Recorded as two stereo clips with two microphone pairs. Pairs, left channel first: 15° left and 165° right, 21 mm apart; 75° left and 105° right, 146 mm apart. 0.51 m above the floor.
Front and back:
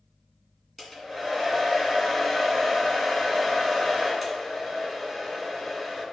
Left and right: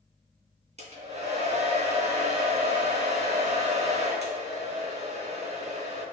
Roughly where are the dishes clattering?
I don't hear dishes clattering.